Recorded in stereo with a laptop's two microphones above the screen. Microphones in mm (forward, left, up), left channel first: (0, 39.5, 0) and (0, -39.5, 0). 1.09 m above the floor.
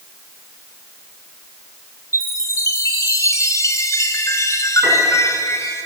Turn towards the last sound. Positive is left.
turn(degrees=-15)  # may be behind; listen again after turning